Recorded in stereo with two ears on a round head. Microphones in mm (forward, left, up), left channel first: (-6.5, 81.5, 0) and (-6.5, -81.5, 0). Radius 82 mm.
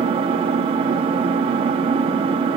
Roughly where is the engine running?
Right.